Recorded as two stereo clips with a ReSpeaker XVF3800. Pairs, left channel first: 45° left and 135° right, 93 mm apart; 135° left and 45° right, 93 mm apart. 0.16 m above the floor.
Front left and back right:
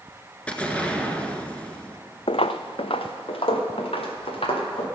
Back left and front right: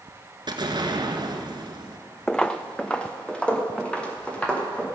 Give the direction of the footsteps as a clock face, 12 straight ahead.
10 o'clock.